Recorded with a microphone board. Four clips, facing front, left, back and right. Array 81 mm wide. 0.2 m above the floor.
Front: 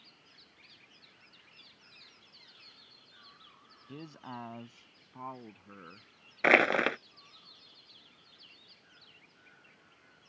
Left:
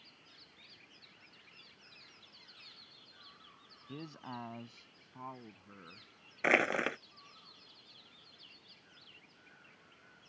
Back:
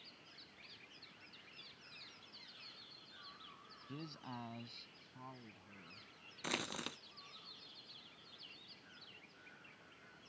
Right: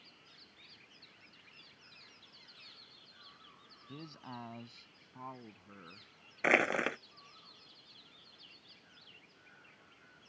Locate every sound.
3.9 s a man speaking: 45° left; by 6.1 s 5° right
6.4 s crushing: straight ahead